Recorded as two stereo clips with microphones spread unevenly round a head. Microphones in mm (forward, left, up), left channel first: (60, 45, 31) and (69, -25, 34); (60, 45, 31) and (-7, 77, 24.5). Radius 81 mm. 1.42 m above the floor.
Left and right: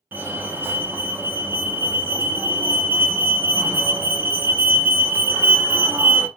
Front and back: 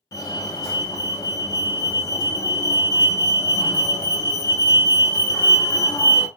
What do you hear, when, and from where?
0.1 s a fire alarm: 35° right, 0.8 m